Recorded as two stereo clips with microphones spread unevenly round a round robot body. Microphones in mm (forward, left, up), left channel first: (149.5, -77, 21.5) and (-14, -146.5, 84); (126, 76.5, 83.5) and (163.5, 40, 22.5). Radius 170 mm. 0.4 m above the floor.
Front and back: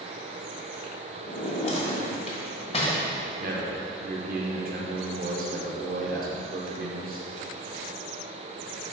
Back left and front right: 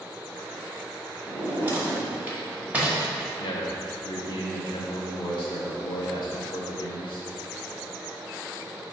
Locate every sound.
1.3 s a drawer: 25° right, 1.7 m
3.4 s a man speaking: 170° left, 0.9 m